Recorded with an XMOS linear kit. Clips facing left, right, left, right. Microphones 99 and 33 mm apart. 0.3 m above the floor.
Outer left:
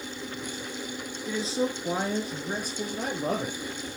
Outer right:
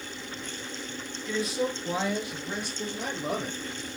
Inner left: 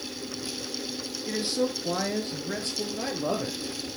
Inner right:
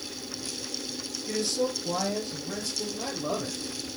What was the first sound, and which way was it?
A man speaking, 25° left (ahead or behind).